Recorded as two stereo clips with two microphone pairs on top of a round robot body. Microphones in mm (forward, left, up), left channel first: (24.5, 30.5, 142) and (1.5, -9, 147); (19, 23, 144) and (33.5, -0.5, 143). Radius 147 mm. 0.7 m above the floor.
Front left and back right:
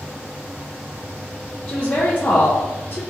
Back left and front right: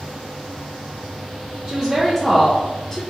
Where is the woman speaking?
5° left, 1.2 m; by 3.0 s 50° left, 0.9 m.